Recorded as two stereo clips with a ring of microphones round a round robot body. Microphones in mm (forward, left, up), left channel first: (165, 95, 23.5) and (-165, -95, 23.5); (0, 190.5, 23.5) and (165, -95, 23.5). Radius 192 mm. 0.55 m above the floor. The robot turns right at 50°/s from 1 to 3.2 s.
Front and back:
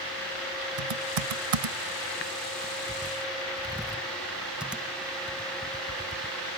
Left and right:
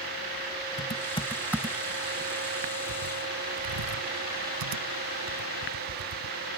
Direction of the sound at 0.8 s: 175° right.